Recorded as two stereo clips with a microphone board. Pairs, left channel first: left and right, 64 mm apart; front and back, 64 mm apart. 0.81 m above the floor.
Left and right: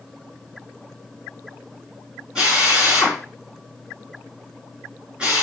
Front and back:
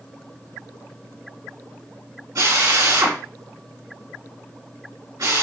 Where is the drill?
165° right, 5.5 m.